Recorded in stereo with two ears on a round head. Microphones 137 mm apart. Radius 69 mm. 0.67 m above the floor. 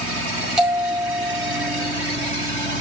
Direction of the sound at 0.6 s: 5° right (ahead or behind).